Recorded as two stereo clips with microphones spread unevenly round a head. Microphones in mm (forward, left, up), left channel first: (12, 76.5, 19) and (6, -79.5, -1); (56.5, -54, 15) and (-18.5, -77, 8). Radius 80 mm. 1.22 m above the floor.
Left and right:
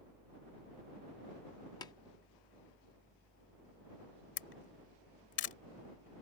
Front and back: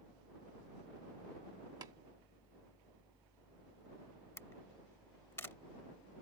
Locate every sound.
0.0 s a fan: 150° left
1.8 s tapping: 145° left
4.4 s a camera shutter: 90° left